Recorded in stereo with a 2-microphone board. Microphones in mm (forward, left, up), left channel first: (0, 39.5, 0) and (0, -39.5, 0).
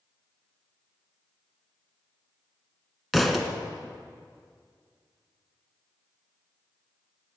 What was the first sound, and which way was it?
A thud, centre (ahead or behind).